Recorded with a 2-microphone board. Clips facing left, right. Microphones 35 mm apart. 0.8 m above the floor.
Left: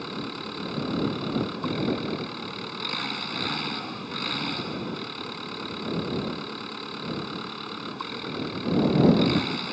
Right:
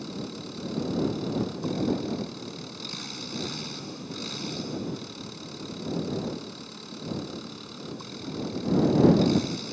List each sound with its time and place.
0.0 s an engine running: 45° left (ahead or behind)